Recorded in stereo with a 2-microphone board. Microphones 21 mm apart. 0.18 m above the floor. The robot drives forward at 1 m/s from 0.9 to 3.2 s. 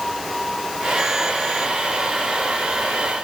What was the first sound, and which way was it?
Only background noise.